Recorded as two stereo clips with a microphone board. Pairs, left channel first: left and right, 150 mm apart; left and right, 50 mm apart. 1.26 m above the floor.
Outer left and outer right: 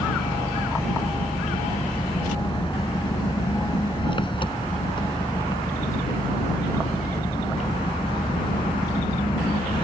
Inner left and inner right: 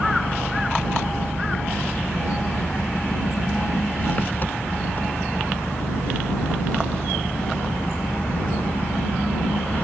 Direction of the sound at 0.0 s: 35° left (ahead or behind).